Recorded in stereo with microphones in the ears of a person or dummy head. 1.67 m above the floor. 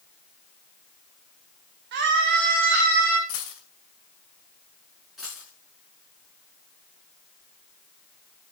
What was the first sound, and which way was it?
A scream, 65° right (ahead or behind).